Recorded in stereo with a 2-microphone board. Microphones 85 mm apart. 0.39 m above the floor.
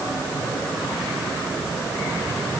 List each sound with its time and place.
Only background noise.